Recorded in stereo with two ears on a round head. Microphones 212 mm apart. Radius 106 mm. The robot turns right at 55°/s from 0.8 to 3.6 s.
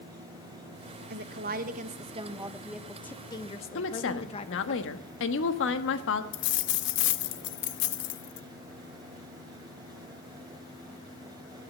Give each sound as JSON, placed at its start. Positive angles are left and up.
{"t": 1.1, "sound": "a woman speaking", "azimuth_deg": -95, "distance_m": 1.0}
{"t": 3.8, "sound": "a woman speaking", "side_deg": 55, "distance_m": 1.3}
{"t": 6.3, "sound": "a dropped coin", "side_deg": 55, "distance_m": 0.7}